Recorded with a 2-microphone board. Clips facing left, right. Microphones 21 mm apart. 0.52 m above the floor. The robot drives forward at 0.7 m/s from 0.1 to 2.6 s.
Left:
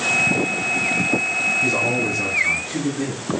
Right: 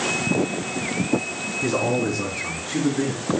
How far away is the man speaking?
About 5 m.